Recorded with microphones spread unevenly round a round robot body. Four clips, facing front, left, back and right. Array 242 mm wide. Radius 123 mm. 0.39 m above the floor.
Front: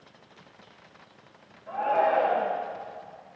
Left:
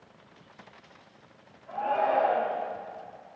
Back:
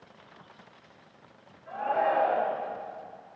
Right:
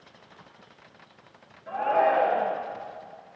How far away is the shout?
About 7 m.